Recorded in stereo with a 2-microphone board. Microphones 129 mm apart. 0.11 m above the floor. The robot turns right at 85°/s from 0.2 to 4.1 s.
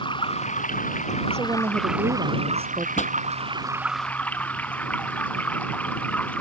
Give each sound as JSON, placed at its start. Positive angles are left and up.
{"t": 0.0, "sound": "running water", "azimuth_deg": 40}
{"t": 1.3, "sound": "a woman speaking", "azimuth_deg": -160}
{"t": 3.0, "sound": "a pop", "side_deg": 65}